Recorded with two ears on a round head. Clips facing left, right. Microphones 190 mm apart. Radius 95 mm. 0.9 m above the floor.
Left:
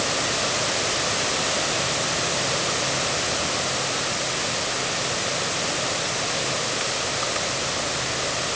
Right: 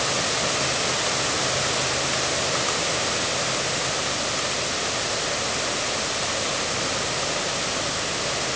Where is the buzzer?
I don't hear a buzzer.